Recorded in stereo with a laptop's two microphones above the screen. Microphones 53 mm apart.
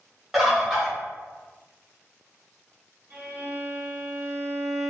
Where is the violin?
35° right (ahead or behind), 0.7 m.